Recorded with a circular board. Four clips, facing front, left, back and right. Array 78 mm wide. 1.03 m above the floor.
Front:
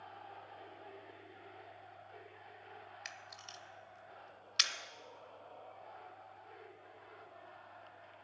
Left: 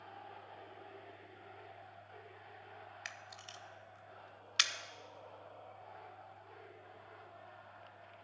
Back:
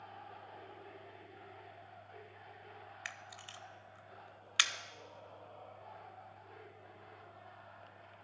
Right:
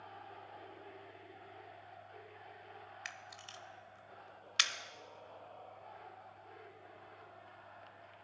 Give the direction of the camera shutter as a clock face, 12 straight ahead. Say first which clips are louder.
Even, back 2 dB; 6 o'clock.